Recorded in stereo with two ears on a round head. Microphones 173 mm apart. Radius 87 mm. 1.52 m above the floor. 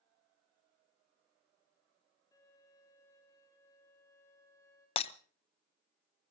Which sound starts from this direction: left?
Breaking glass, at 5.0 s.